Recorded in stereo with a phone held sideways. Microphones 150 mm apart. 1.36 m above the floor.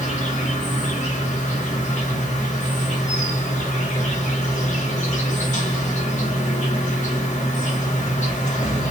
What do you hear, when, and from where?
0.0 s an insect: 55° left (ahead or behind), 1.3 m